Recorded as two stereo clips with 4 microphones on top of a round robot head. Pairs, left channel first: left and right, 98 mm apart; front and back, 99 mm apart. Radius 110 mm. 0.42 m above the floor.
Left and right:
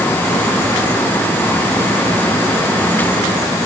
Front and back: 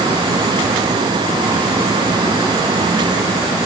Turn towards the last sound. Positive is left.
No sound to turn to.